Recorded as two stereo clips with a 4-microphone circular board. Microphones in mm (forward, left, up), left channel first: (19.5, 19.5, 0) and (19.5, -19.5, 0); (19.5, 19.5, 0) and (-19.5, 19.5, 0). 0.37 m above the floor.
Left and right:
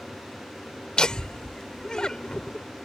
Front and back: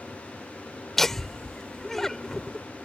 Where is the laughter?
65° left.